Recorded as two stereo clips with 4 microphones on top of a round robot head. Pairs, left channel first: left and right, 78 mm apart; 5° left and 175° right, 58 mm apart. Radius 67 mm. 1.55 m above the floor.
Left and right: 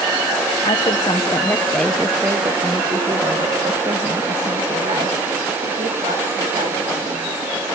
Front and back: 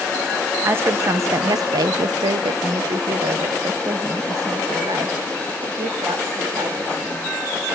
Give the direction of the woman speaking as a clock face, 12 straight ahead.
8 o'clock.